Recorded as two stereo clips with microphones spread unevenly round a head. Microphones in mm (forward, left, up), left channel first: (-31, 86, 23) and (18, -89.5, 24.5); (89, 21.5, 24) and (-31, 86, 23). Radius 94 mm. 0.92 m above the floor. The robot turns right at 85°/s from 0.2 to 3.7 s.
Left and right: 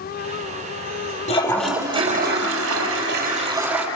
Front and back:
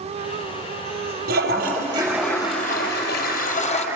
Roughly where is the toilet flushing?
Behind.